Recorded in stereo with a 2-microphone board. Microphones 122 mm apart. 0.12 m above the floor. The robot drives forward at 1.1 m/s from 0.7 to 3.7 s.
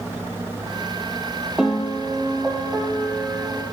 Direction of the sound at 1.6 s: 5° right (ahead or behind).